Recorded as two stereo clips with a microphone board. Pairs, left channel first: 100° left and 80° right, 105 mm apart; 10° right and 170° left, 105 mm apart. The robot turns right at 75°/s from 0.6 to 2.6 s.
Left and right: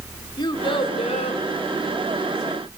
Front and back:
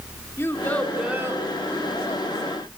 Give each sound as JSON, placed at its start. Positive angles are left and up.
{"t": 0.4, "sound": "a child speaking", "azimuth_deg": 55, "distance_m": 2.5}